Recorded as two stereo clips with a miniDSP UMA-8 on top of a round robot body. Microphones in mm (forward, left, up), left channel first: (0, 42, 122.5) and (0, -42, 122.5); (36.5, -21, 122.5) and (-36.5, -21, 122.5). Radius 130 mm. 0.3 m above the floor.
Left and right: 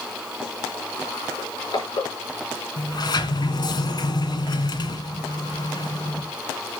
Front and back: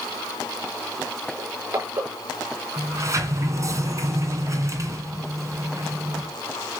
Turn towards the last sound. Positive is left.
turn(degrees=130)